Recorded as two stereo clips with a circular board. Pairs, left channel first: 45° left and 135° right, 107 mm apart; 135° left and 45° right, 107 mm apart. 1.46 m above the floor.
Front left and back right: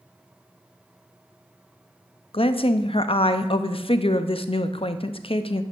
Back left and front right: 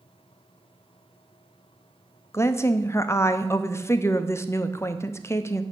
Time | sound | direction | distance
2.3 | a woman speaking | 70° left | 0.5 m